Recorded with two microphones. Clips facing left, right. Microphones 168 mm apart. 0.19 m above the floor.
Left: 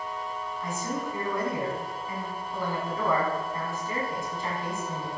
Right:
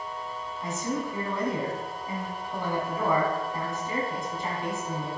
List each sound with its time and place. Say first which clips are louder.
0.6 s a man speaking: right 3 dB; 20° right (ahead or behind), 1.3 m